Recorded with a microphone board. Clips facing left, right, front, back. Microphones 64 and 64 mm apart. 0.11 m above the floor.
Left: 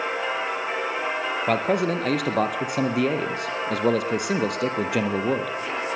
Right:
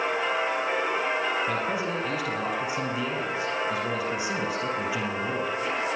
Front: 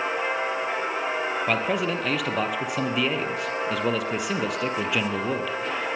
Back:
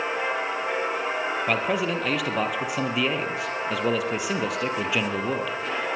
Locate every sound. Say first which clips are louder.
1.5 s a man speaking: left 6 dB, even; 90° left, 3 m